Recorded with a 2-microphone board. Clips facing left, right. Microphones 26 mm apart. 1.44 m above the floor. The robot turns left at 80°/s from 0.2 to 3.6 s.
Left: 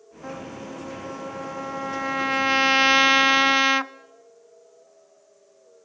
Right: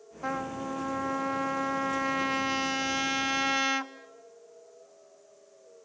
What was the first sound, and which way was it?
A trumpet, 35° right.